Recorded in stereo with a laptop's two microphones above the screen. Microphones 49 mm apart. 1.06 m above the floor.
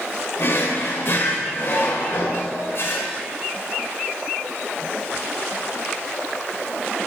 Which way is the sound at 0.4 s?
50° left (ahead or behind).